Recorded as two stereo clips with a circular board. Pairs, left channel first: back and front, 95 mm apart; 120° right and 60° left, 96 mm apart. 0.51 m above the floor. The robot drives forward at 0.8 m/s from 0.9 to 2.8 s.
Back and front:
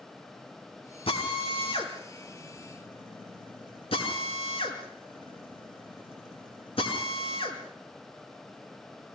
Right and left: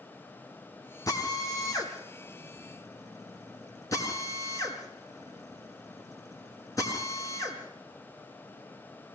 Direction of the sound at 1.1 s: 170° right.